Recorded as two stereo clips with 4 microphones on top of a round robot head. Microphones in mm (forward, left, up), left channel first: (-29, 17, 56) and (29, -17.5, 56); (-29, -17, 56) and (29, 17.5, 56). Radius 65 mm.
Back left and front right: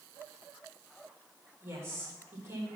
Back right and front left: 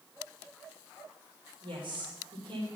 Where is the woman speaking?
25° left, 3.5 m.